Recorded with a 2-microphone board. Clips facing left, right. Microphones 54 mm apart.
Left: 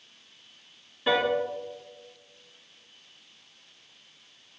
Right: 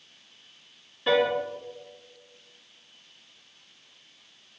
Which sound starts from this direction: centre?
A piano, at 1.1 s.